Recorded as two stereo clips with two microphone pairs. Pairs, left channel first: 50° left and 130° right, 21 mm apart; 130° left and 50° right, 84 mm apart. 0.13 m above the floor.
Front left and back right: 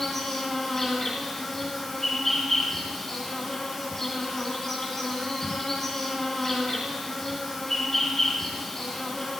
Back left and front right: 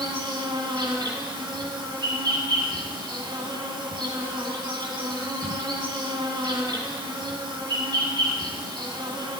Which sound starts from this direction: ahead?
An insect, at 0.0 s.